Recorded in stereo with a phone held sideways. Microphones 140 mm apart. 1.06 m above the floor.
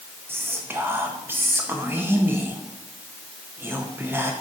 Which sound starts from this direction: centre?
Whispering, at 0.3 s.